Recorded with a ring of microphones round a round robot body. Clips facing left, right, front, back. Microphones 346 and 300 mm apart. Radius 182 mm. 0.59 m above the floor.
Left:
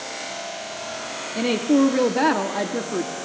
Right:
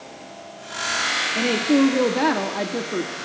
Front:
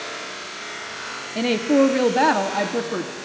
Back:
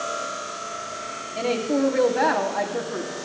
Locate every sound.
1.4 s a woman speaking: straight ahead, 1.1 m